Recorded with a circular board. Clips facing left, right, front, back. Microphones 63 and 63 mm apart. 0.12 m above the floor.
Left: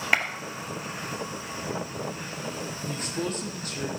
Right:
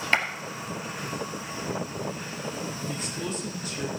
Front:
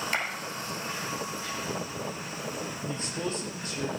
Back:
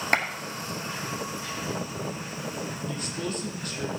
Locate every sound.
0.1 s a clap: 170° left, 2 m
2.9 s a man speaking: 55° left, 5 m